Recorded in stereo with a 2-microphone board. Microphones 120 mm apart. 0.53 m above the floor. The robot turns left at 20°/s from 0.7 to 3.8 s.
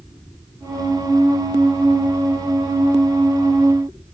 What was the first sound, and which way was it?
Only background noise.